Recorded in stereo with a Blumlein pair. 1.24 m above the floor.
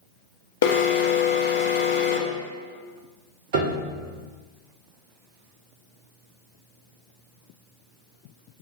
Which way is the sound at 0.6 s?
50° left.